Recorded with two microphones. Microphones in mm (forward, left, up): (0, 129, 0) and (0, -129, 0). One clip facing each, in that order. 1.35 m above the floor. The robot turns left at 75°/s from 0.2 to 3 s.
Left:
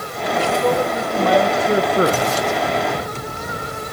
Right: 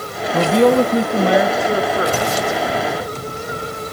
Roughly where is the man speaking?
Right.